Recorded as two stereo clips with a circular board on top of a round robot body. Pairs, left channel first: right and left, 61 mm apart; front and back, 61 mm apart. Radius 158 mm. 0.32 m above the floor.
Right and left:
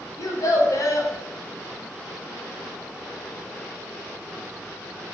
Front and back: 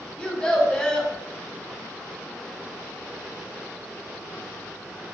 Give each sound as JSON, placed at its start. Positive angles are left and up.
{"t": 0.2, "sound": "a child speaking", "azimuth_deg": -75, "distance_m": 0.8}